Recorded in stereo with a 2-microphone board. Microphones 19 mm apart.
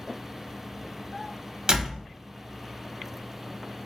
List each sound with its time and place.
1.7 s a door slam: 35° right (ahead or behind), 1.0 m